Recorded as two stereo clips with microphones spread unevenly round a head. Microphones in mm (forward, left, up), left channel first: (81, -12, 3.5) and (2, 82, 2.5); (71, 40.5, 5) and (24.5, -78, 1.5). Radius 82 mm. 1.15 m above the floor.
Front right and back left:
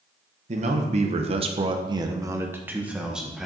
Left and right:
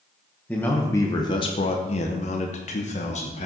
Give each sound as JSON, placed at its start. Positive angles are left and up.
{"t": 0.5, "sound": "a man speaking", "azimuth_deg": 150, "distance_m": 1.2}